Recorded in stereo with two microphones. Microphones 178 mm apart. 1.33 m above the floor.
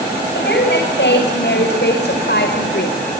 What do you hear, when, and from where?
0.3 s a woman speaking: 85° left, 6.5 m; by 3.0 s 75° left (ahead or behind), 3.5 m